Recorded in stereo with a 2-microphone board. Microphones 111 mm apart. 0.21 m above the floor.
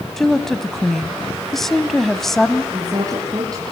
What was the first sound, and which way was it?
A woman speaking, 5° left (ahead or behind).